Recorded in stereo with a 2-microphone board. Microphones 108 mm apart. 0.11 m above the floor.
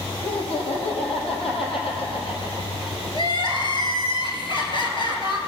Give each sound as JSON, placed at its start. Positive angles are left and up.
{"t": 0.2, "sound": "laughter", "side_deg": 65, "distance_m": 4.0}
{"t": 3.1, "sound": "crying", "side_deg": 50, "distance_m": 1.9}